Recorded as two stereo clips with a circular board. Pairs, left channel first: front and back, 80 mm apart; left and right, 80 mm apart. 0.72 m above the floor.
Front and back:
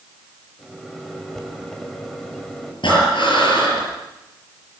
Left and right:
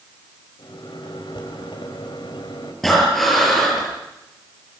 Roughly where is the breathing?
Ahead.